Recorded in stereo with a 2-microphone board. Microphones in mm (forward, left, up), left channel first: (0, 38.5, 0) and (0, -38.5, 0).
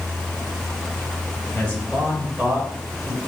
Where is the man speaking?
10° left (ahead or behind), 1.4 m; by 3.2 s 45° right (ahead or behind), 1.5 m.